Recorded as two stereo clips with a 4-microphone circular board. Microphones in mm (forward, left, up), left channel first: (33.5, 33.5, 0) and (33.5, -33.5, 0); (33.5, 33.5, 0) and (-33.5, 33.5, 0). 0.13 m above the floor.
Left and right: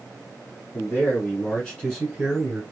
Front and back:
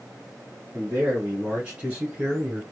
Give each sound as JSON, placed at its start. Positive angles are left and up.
{"t": 0.7, "sound": "a man speaking", "azimuth_deg": 125, "distance_m": 1.6}